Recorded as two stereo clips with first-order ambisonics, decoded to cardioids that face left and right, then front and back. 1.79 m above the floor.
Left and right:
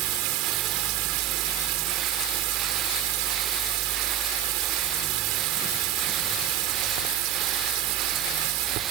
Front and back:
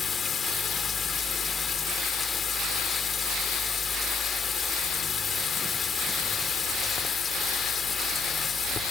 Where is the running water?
70° right.